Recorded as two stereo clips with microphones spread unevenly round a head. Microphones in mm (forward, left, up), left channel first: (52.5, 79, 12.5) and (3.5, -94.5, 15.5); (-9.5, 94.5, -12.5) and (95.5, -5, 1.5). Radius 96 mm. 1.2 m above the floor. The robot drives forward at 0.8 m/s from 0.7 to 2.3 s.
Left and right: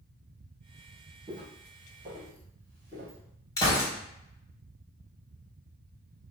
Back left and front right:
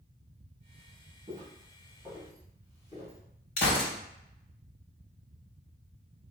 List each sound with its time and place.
1.3 s footsteps: 65° right, 1.4 m; by 3.2 s 150° right, 2 m
3.6 s a gunshot: 150° left, 1.6 m